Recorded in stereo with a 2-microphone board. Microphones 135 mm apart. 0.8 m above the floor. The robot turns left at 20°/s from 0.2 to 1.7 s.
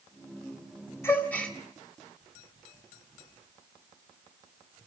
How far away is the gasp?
About 2.5 m.